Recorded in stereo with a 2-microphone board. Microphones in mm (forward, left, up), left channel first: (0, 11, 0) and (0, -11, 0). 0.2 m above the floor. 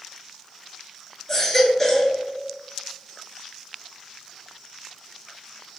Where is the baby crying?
15° left (ahead or behind), 1.0 m.